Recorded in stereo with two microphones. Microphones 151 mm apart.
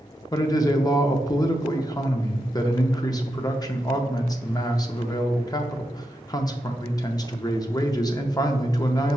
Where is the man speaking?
25° left (ahead or behind), 0.6 m.